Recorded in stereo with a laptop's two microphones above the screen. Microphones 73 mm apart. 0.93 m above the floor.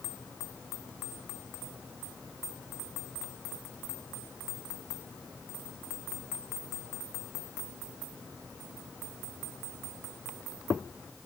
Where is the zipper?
No zipper in this recording.